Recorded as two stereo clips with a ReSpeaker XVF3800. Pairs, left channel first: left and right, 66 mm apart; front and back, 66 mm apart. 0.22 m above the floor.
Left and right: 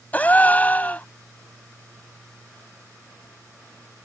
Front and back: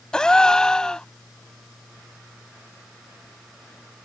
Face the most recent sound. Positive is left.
turn(degrees=65)